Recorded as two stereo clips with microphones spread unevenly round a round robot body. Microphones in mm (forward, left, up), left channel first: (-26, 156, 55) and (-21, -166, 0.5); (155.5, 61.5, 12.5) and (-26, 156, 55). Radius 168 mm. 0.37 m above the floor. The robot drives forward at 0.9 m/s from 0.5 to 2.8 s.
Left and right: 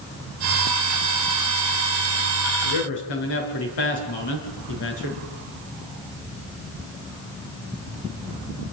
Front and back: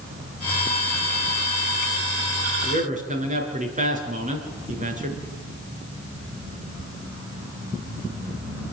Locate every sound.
2.6 s a man speaking: 95° left, 6 m; by 5.2 s 100° left, 6 m